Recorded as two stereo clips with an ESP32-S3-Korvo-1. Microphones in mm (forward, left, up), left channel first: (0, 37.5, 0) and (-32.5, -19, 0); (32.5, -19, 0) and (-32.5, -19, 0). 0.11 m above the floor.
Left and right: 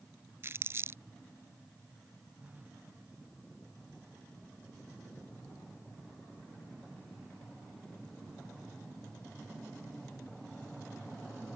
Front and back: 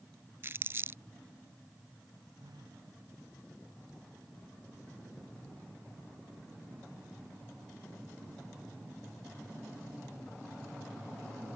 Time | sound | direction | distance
0.4 | crumpling | 150° right | ?
2.4 | a phone buzzing | 175° left | ?